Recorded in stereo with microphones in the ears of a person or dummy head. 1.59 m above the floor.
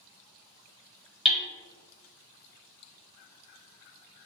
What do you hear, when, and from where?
1.2 s hammering: 5° left (ahead or behind), 0.7 m